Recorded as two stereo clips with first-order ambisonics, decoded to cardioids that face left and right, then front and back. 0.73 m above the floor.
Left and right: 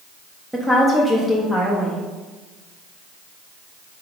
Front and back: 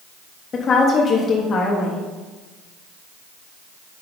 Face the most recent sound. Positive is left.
turn(degrees=-5)